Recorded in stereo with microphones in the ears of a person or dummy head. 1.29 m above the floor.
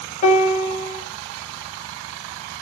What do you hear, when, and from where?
0.2 s a piano: 40° left (ahead or behind), 0.6 m